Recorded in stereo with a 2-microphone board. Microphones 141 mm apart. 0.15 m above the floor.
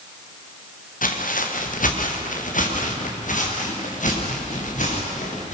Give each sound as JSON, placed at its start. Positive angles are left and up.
{"t": 1.0, "sound": "footsteps", "side_deg": 75, "distance_m": 3.5}